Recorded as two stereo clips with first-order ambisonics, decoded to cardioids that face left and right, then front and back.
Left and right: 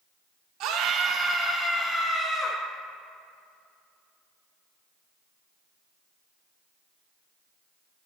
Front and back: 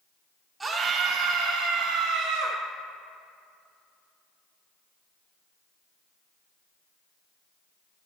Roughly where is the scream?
Right.